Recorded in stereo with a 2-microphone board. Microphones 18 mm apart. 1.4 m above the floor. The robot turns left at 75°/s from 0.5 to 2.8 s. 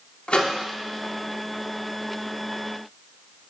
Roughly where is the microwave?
Left.